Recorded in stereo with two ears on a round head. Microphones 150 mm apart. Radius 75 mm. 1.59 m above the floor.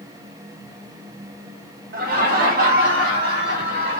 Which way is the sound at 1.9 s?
55° right (ahead or behind).